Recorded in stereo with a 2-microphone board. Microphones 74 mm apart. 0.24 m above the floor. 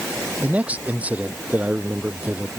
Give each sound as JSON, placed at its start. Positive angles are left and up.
{"t": 0.4, "sound": "a man speaking", "side_deg": -20}